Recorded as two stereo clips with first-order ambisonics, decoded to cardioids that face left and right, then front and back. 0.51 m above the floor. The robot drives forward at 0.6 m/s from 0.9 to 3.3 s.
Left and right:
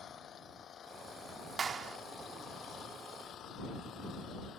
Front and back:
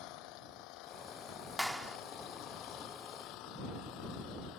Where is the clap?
75° right; by 2.0 s 120° right.